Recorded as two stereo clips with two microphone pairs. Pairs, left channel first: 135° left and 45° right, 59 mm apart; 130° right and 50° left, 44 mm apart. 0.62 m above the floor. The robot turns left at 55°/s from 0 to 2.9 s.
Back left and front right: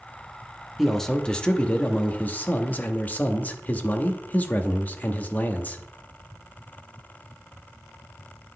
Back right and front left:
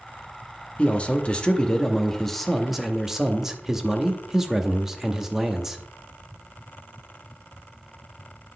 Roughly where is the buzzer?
No buzzer in this recording.